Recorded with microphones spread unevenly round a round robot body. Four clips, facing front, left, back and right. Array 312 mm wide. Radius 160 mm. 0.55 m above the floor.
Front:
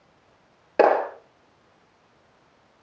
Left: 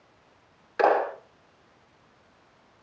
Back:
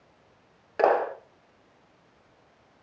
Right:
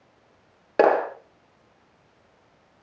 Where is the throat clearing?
No throat clearing in this recording.